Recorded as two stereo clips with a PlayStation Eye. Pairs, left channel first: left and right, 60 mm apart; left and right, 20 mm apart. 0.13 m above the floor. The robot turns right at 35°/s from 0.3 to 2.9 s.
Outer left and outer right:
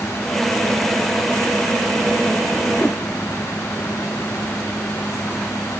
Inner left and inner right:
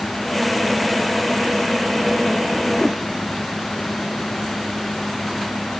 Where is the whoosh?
30° left (ahead or behind).